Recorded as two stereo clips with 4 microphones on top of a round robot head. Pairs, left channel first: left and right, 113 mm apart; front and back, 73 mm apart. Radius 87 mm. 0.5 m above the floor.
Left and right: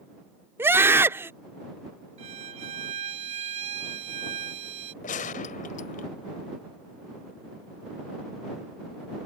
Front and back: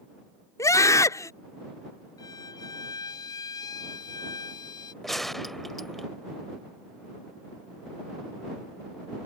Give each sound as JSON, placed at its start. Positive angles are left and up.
{"t": 0.6, "sound": "a scream", "azimuth_deg": -25}
{"t": 2.2, "sound": "a violin", "azimuth_deg": -50}
{"t": 5.0, "sound": "a gunshot", "azimuth_deg": 85}